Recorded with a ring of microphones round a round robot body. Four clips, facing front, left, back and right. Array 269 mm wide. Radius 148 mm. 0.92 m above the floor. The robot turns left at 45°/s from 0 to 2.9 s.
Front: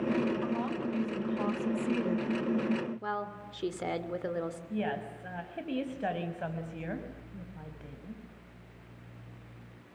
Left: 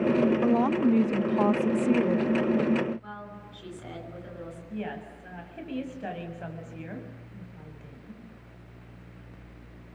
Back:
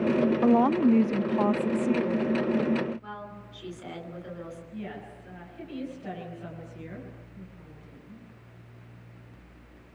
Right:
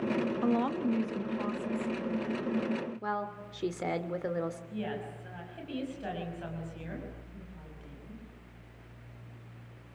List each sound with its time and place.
0.4 s a woman speaking: 175° left, 0.7 m; by 2.2 s 90° left, 0.7 m
3.0 s a woman speaking: 50° right, 3.5 m
4.7 s a woman speaking: 15° left, 5.5 m